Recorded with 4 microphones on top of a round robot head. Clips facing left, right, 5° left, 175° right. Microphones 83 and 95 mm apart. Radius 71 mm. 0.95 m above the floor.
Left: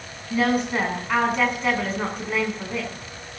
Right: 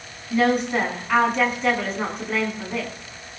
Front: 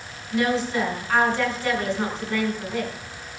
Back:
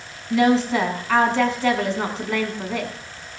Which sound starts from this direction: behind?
A woman speaking, at 0.3 s.